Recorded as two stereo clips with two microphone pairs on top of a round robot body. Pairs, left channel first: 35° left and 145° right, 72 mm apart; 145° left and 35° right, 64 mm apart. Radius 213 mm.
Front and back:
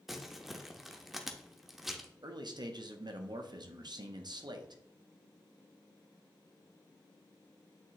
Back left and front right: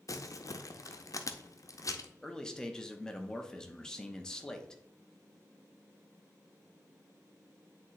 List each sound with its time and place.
0.1 s crumpling: 120° left, 0.9 m
2.2 s a man speaking: 140° right, 1.1 m